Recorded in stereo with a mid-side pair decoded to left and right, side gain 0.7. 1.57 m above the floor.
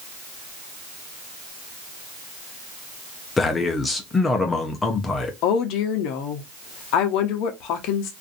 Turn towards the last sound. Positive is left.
turn(degrees=60)